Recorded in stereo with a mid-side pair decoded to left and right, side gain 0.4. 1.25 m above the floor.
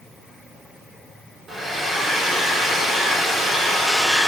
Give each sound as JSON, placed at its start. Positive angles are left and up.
{"t": 1.5, "sound": "a hair dryer", "azimuth_deg": -50, "distance_m": 1.1}